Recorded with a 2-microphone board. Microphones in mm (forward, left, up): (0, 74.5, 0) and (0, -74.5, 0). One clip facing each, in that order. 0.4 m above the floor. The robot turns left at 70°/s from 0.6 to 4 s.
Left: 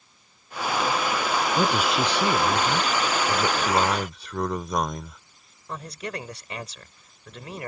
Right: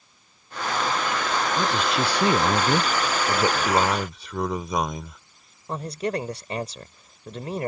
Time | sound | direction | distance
1.6 | a man speaking | 30° left | ?
3.3 | a man speaking | 120° right | ?
5.7 | a man speaking | 35° right (ahead or behind) | ?